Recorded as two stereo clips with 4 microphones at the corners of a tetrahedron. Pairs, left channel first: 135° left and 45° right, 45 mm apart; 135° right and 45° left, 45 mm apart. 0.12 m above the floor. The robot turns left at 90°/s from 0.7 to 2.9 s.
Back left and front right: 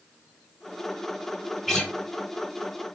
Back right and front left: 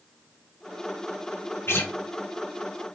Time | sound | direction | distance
1.7 | a guitar | 135° right | 1.3 m